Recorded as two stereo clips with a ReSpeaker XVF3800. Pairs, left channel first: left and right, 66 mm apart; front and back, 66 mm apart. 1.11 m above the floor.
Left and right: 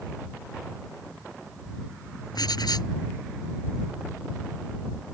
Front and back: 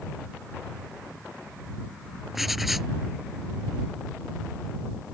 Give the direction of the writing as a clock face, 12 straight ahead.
9 o'clock.